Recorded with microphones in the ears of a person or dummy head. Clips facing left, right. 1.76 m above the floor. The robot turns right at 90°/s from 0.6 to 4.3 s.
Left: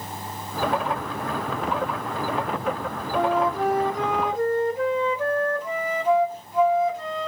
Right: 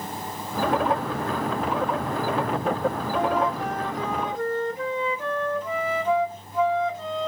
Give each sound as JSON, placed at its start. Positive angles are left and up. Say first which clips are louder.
{"t": 3.1, "sound": "a flute", "louder": "left 6 dB", "azimuth_deg": 25, "distance_m": 0.8}